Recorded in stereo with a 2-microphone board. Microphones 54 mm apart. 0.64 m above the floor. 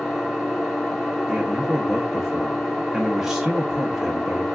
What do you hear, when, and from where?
0.0 s an engine running: 5° left (ahead or behind), 0.8 m
1.3 s a man speaking: 10° right (ahead or behind), 0.6 m